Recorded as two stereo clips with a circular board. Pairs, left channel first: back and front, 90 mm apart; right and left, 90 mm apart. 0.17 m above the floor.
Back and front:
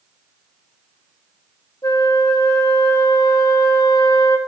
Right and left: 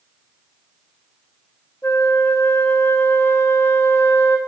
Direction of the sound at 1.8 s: 150° right.